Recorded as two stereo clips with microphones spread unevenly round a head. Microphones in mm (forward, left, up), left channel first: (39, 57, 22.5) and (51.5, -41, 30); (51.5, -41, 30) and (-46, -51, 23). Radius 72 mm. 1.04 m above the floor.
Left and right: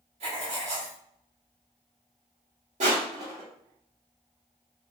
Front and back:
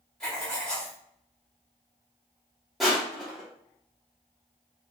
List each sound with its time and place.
0.2 s writing: 75° right, 1.5 m
2.8 s crushing: 85° right, 1.6 m